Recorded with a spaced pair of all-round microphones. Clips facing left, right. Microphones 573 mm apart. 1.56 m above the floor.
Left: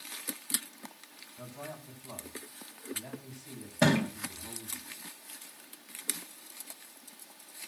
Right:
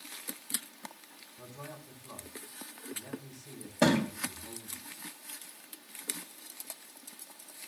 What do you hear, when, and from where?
1.4 s a man speaking: 85° left, 9.5 m
3.8 s a thud: 20° left (ahead or behind), 4.5 m